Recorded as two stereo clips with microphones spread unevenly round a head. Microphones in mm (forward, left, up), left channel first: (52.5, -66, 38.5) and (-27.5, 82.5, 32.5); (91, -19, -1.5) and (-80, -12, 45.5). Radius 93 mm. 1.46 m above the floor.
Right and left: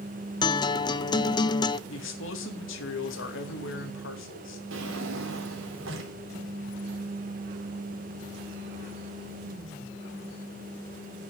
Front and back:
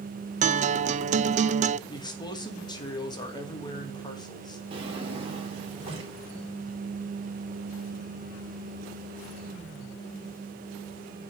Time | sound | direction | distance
0.4 | a guitar | 130° right | 0.5 m
1.9 | a man speaking | 70° right | 2.5 m
4.7 | a drawer | 120° left | 3 m